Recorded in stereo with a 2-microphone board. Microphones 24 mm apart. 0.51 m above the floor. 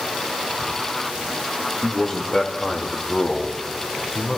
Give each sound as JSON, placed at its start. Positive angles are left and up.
{"t": 1.8, "sound": "a man speaking", "side_deg": 40, "distance_m": 1.4}